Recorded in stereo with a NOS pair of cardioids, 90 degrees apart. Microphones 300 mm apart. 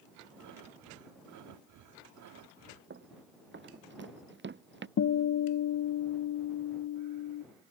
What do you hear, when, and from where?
0.4 s breathing: 70° right
2.9 s running footsteps: 35° right
5.0 s a guitar: 50° left